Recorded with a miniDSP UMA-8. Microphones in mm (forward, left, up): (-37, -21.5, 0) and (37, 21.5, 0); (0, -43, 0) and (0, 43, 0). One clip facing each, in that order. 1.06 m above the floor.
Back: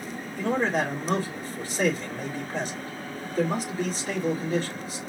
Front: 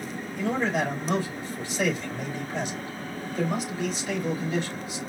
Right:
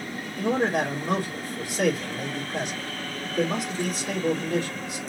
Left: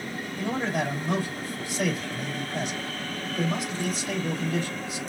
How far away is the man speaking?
About 3 m.